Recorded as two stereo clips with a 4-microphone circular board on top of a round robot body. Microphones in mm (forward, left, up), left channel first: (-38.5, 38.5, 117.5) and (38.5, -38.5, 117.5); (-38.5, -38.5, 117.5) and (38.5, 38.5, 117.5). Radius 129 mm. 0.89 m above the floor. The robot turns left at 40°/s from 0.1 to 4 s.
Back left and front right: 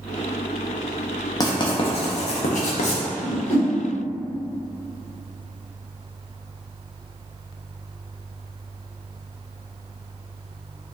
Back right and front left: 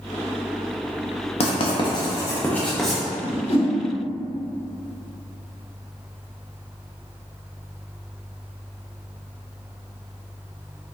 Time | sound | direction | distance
1.4 | writing | 165° right | 0.5 m
3.2 | a whoosh | 140° right | 1.4 m